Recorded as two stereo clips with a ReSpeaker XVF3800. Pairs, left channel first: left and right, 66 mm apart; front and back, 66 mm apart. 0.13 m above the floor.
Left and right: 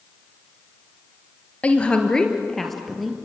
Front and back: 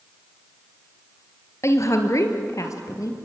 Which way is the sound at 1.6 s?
25° left.